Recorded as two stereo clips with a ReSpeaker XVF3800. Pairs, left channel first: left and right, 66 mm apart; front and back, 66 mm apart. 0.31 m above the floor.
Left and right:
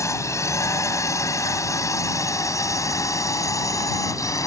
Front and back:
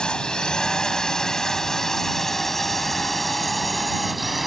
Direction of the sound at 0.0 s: 75° left.